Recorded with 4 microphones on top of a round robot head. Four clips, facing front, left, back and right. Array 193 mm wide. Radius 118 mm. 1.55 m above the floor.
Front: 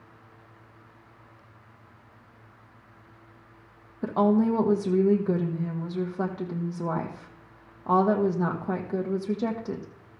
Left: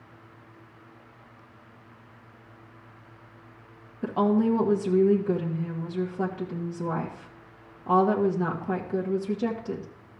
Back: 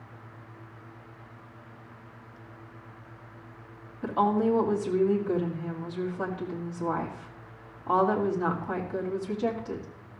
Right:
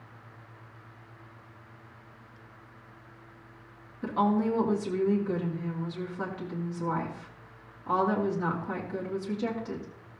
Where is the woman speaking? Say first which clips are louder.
Left 3 dB, front 2 dB; 30° left, 1.8 m.